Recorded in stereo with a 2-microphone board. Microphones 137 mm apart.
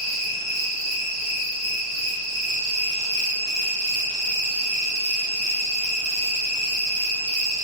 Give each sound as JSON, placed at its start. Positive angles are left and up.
{"t": 0.0, "sound": "an insect", "side_deg": -45, "distance_m": 0.9}